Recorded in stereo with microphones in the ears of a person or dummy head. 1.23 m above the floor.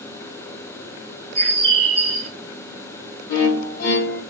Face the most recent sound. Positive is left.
turn(degrees=45)  # may be behind; listen again after turning